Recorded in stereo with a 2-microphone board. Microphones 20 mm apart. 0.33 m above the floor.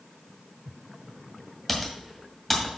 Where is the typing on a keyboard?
5° left (ahead or behind), 1.9 m.